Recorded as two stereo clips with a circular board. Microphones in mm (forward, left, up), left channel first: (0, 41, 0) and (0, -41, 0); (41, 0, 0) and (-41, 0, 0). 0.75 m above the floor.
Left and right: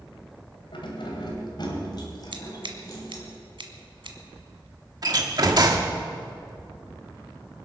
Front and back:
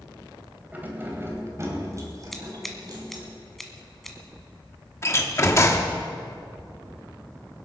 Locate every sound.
0.7 s keys jangling: 110° left, 2.5 m; by 3.2 s 140° left, 3.5 m
2.3 s scissors: 90° right, 1.5 m
5.0 s a door slam: 55° right, 1.3 m